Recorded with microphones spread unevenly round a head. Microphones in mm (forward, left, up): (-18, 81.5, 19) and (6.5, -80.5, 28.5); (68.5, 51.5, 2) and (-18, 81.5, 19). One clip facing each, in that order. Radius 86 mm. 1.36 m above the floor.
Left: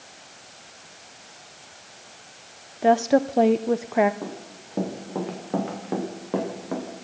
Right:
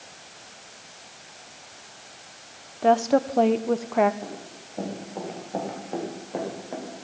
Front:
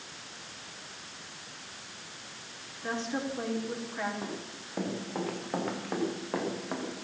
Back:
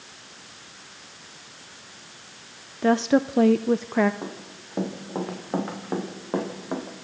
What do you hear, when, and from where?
2.8 s a woman speaking: straight behind, 0.7 m
4.2 s running footsteps: 95° left, 8.5 m; by 7.0 s 100° left, 6.5 m